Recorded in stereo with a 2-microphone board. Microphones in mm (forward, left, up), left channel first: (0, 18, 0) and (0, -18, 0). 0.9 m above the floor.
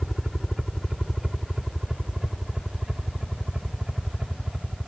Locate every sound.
0.0 s a helicopter: 5° right (ahead or behind); by 4.9 s 20° right (ahead or behind)